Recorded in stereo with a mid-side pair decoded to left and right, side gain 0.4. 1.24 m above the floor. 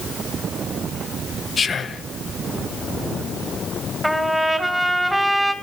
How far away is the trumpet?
About 1.7 m.